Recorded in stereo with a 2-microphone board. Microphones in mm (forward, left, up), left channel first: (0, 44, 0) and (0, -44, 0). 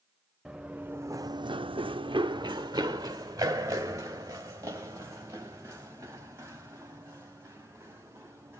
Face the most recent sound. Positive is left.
turn(degrees=-30)  # may be behind; listen again after turning